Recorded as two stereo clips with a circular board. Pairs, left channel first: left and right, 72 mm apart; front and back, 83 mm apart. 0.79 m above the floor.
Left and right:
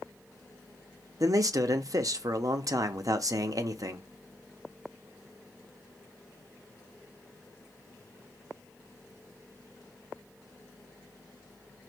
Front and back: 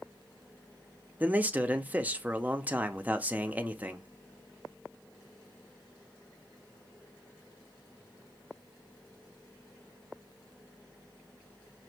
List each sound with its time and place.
1.2 s a man speaking: 110° right, 0.6 m